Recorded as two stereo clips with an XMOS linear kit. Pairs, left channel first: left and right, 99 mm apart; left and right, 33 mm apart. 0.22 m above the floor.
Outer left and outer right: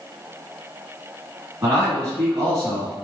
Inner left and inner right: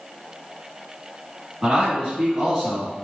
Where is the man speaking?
25° right (ahead or behind), 2.5 m.